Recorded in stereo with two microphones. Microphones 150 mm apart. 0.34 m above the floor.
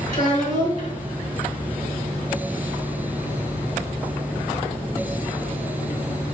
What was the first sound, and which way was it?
A child speaking, 55° left (ahead or behind).